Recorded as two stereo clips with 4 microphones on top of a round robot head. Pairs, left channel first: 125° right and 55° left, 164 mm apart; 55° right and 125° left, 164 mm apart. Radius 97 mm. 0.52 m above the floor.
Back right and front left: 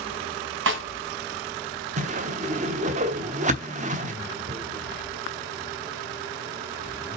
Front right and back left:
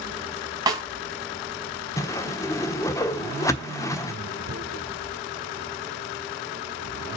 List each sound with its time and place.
0.7 s a snare drum: 55° left, 1.6 m
2.0 s a whoosh: 15° left, 1.1 m
4.5 s tearing paper: 115° left, 1.5 m